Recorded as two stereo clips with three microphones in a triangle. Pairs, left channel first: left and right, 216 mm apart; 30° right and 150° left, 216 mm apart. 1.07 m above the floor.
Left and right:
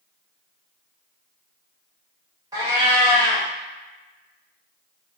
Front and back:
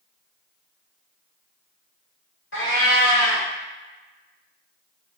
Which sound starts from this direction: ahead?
A cat meowing, at 2.5 s.